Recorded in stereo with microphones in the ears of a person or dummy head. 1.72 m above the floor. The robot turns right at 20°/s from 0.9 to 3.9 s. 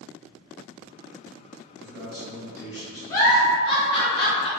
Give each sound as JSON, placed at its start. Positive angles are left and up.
{"t": 1.8, "sound": "a man speaking", "side_deg": 15, "distance_m": 1.1}
{"t": 3.1, "sound": "a giggle", "side_deg": 20, "distance_m": 0.7}